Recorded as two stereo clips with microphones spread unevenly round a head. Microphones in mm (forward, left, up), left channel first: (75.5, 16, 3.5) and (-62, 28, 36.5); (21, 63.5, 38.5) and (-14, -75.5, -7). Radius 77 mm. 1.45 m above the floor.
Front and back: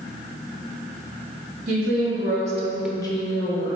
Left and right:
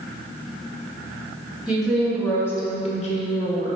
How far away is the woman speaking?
About 1.7 m.